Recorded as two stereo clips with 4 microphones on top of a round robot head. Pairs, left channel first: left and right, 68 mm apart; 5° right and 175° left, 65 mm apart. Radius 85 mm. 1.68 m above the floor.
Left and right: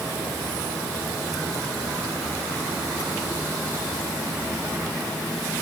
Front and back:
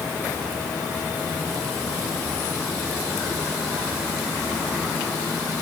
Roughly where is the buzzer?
I don't hear a buzzer.